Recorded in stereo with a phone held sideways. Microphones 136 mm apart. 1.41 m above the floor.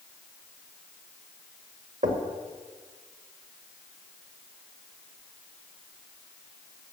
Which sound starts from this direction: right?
Knocking, at 2.0 s.